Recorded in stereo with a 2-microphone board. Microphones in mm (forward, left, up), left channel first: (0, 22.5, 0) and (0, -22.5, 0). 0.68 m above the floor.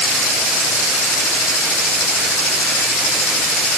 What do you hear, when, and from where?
Only background noise.